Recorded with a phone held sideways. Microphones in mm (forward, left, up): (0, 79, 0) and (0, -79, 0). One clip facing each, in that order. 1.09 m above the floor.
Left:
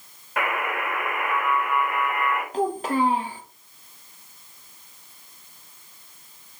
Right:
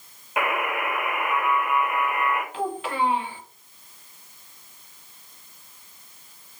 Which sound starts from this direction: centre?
A buzzer, at 0.4 s.